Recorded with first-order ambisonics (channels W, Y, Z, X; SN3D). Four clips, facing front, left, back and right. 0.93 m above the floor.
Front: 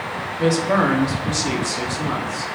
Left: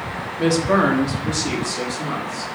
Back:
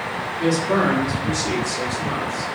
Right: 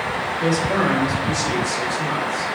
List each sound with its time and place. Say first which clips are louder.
0.4 s a woman speaking: left 4 dB, front 1 dB; 60° left, 1.0 m; by 2.5 s 10° left, 1.7 m